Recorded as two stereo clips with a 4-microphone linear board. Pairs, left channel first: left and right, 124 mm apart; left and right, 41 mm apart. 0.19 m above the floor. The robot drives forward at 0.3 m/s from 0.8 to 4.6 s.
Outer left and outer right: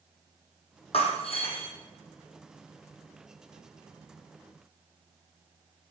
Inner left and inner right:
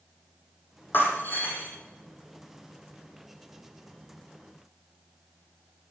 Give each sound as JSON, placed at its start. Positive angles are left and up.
{"t": 0.9, "sound": "breaking glass", "side_deg": 55, "distance_m": 2.5}